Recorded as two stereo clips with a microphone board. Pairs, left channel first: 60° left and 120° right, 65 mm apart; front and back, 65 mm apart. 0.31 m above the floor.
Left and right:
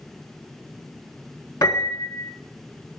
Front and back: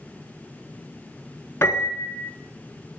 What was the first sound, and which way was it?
A piano, 50° left.